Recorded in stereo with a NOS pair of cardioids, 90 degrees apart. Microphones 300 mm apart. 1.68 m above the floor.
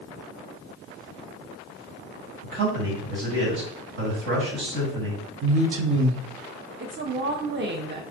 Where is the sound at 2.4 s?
70° right, 1.9 m.